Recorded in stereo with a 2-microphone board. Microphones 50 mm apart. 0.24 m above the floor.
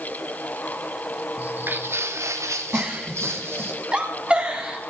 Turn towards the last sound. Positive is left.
turn(degrees=-25)  # may be behind; listen again after turning